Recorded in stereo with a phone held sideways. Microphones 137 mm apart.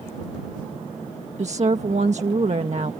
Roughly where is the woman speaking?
Right.